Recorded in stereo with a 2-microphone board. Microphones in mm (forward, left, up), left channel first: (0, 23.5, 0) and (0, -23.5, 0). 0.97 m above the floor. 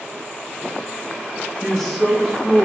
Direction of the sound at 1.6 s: 5° left (ahead or behind).